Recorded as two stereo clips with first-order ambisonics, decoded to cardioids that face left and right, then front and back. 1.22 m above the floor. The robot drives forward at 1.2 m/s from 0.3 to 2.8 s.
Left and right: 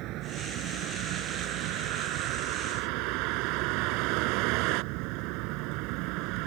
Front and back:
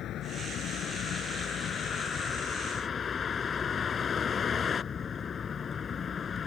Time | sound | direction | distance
0.0 | a vehicle | 55° right | ?